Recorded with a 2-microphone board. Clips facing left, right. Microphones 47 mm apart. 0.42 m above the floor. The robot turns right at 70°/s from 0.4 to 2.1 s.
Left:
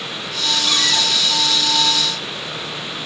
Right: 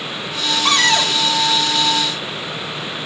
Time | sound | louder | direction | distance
0.7 | a cupboard door | right 6 dB | 65° right | 1.1 m